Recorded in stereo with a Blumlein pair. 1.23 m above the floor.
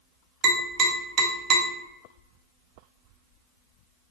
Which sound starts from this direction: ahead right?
Tapping, at 0.4 s.